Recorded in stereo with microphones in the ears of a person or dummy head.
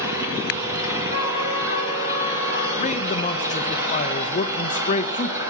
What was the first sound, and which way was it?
An engine running, 20° right (ahead or behind).